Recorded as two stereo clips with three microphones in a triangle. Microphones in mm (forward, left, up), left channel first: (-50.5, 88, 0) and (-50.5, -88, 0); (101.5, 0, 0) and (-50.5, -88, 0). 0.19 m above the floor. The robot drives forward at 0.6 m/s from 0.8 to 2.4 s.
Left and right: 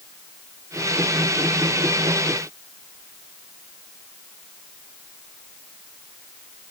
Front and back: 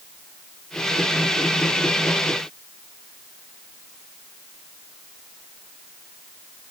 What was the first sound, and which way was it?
Only background noise.